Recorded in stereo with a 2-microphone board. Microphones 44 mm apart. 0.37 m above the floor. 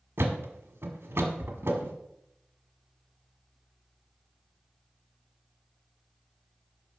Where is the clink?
No clink in this recording.